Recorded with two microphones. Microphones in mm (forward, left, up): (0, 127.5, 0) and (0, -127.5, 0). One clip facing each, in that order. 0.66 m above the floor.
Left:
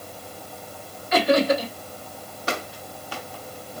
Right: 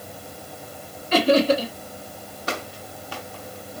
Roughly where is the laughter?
Right.